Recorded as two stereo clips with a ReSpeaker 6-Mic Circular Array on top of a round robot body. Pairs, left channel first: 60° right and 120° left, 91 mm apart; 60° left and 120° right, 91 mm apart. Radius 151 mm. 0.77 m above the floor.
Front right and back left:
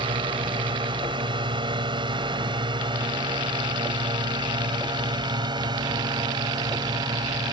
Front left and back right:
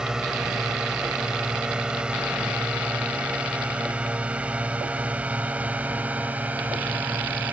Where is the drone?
155° left; by 7.5 s 165° left.